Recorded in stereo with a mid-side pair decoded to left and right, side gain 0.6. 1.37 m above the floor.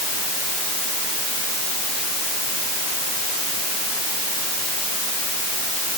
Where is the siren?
No siren in this recording.